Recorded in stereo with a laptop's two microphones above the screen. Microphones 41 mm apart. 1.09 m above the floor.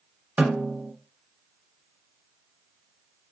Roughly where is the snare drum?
Right.